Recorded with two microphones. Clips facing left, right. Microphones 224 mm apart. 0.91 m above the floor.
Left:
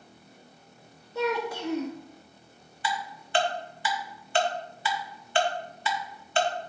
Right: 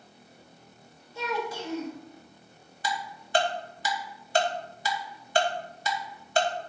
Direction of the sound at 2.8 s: 40° right (ahead or behind).